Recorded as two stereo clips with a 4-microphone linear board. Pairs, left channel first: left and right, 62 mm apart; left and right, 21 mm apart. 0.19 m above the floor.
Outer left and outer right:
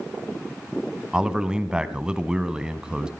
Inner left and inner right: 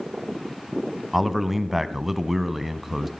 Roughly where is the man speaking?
Centre.